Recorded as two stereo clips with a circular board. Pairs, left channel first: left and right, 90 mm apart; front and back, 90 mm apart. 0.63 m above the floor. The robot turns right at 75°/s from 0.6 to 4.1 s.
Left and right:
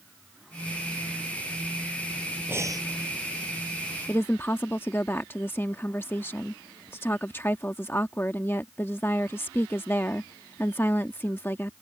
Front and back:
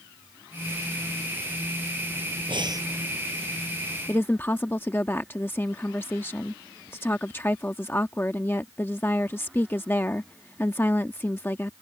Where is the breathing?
155° right; by 2.9 s 130° right.